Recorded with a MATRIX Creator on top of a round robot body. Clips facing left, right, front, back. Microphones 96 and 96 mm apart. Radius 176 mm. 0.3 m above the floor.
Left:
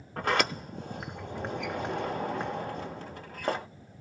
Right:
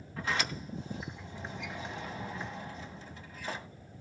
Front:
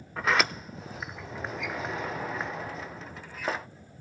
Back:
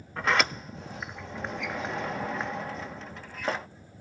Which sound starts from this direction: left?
A sliding door, at 0.2 s.